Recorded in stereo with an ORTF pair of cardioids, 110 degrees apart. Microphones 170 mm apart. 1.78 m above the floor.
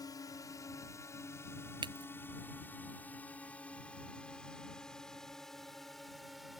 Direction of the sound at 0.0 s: 25° left.